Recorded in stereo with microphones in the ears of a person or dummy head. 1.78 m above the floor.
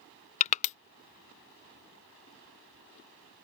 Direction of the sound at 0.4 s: 40° left (ahead or behind).